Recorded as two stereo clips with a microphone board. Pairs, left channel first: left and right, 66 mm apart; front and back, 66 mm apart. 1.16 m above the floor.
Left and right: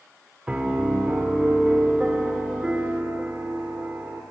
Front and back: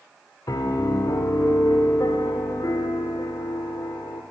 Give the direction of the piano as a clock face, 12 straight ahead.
1 o'clock.